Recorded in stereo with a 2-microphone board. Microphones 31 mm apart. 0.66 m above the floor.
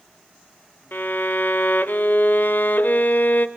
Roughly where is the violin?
Left.